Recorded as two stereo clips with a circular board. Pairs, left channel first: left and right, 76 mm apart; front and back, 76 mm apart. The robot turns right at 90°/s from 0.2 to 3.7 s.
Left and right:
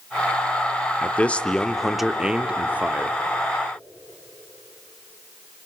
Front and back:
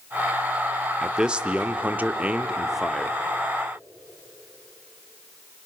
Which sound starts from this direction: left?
A man speaking, at 1.0 s.